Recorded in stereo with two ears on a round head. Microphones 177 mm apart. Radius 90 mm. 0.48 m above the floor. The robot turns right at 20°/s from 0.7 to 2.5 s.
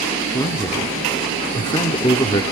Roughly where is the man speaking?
Centre.